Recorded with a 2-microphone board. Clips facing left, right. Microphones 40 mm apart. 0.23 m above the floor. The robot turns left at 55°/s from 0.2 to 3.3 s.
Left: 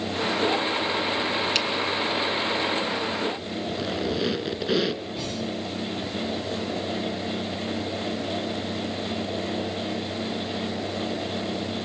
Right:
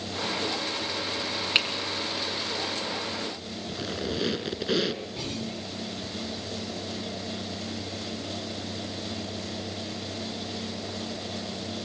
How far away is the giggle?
I don't hear a giggle.